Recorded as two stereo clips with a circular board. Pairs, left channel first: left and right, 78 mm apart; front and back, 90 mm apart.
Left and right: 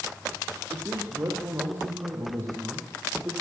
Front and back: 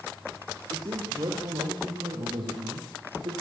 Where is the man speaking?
140° right, 5.5 m; by 3.3 s 155° right, 5 m.